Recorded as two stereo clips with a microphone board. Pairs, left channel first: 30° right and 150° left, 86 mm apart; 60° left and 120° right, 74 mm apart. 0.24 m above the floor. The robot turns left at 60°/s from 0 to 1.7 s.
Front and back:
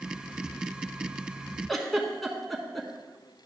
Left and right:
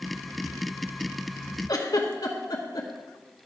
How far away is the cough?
No cough in this recording.